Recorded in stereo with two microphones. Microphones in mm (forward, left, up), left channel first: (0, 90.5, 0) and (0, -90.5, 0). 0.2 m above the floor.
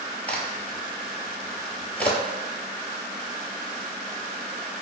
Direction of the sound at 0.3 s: 10° left (ahead or behind).